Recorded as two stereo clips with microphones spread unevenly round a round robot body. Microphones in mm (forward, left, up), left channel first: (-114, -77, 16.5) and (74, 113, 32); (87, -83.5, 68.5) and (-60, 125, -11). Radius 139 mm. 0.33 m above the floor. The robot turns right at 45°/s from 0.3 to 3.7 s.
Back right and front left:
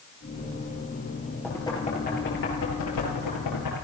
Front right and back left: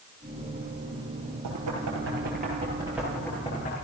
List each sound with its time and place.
1.4 s knocking: 140° left, 7 m; by 3.8 s 120° right, 7 m